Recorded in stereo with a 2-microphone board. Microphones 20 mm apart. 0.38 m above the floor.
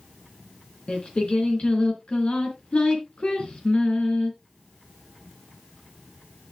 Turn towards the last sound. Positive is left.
turn(degrees=60)  # may be behind; listen again after turning